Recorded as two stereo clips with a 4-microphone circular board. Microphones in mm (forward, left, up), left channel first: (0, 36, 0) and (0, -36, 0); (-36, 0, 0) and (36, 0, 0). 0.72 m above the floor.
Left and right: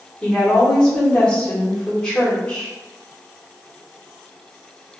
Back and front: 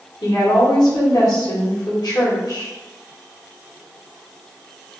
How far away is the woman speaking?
About 1.4 m.